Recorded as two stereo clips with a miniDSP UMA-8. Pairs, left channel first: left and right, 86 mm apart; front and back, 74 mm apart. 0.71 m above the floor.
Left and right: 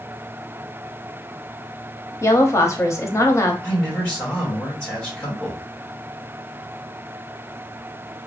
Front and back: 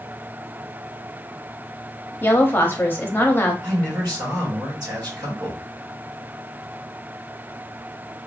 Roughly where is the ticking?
No ticking in this recording.